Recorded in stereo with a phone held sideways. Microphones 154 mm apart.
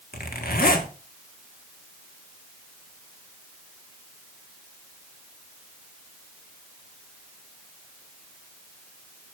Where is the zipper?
75° left (ahead or behind), 1.4 m.